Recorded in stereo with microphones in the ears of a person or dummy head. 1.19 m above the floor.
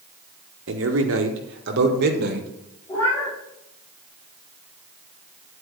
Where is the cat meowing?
20° left (ahead or behind), 6 m.